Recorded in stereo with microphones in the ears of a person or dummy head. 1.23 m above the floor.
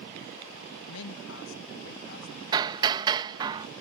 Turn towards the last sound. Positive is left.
turn(degrees=-25)  # may be behind; listen again after turning